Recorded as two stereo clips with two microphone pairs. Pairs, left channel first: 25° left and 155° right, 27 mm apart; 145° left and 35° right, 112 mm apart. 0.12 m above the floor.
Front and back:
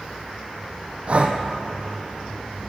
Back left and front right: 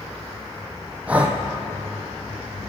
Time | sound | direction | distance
1.1 | breathing | 115° right | 1.2 m